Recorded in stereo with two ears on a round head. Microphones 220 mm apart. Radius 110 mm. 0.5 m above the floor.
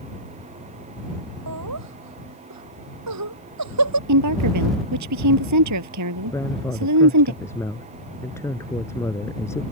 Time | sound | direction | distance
1.5 | laughter | 80° right | ?
4.1 | a woman speaking | 80° right | ?
6.3 | a woman speaking | 10° left (ahead or behind) | ?